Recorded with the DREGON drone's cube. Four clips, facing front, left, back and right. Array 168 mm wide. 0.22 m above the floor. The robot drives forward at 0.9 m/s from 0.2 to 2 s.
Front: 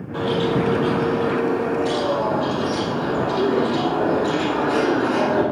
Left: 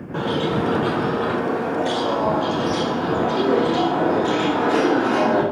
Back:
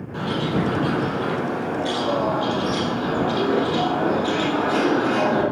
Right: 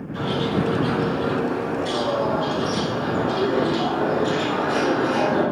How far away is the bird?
About 3 m.